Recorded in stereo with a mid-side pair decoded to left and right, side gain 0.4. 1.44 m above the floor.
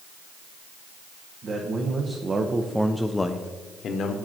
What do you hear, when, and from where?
1.4 s a man speaking: 55° right, 1.4 m; by 4.2 s 70° left, 1.0 m